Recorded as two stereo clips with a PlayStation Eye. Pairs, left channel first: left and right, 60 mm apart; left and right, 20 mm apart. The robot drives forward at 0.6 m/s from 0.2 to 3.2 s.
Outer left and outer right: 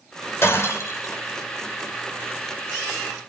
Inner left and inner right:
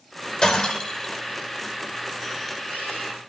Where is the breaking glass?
50° left (ahead or behind), 3.5 m; by 1.2 s 55° left (ahead or behind), 3 m.